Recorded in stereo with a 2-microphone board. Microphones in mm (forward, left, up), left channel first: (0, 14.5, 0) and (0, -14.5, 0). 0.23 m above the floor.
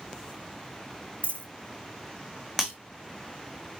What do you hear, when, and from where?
1.2 s a dropped coin: 45° left (ahead or behind), 1.3 m
2.6 s breaking glass: 5° left (ahead or behind), 6 m